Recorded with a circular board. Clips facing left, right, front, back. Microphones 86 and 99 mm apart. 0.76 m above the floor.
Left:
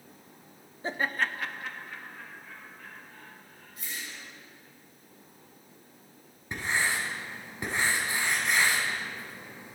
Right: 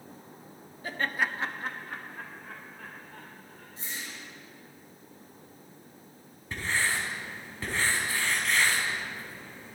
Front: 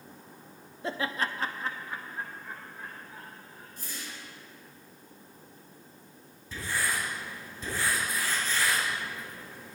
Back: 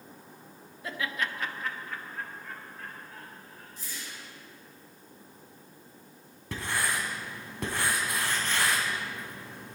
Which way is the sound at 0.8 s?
45° left.